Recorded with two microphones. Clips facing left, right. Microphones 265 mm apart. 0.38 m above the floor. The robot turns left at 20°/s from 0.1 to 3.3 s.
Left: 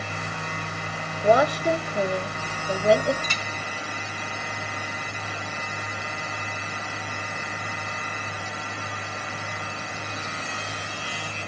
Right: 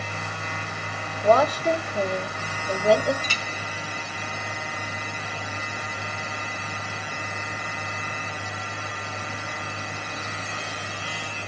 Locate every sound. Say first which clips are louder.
1.2 s a woman speaking: even; 15° left (ahead or behind), 1.3 m; by 3.1 s centre (ahead or behind), 1.3 m
3.2 s a clink: even; 35° right (ahead or behind), 1.0 m